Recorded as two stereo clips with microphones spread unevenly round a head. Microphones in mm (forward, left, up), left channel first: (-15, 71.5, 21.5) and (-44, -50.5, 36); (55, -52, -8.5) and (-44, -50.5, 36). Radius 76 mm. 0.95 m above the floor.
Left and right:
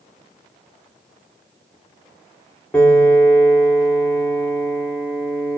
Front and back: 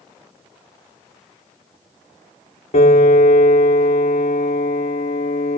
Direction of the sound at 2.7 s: Straight ahead.